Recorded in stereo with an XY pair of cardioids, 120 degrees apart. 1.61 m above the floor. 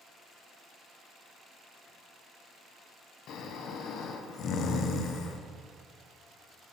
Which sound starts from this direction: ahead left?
Snoring, at 3.3 s.